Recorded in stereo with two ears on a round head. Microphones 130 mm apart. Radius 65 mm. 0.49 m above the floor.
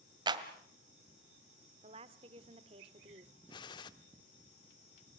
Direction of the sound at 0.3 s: 30° right (ahead or behind).